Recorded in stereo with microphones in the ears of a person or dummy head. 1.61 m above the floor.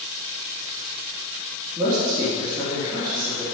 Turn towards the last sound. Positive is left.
turn(degrees=-20)  # may be behind; listen again after turning